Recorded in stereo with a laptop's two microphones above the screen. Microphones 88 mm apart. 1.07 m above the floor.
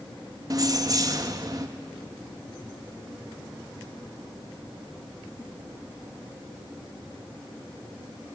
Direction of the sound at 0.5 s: 40° right (ahead or behind).